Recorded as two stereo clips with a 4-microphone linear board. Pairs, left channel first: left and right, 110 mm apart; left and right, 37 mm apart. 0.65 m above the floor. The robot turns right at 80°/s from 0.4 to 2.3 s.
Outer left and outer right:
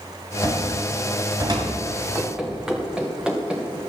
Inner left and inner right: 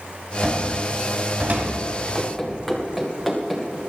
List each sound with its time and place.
0.4 s a cupboard door: 40° left (ahead or behind), 4.5 m; by 1.7 s 55° right (ahead or behind), 4.5 m
2.1 s running footsteps: 15° right (ahead or behind), 2 m; by 3.8 s 10° right (ahead or behind), 3 m